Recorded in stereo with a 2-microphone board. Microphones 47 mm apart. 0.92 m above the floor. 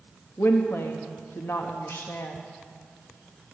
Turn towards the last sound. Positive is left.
turn(degrees=65)  # may be behind; listen again after turning